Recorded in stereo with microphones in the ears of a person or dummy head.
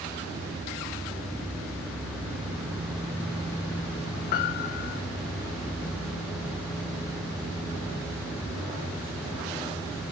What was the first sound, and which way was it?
A piano, 45° left (ahead or behind).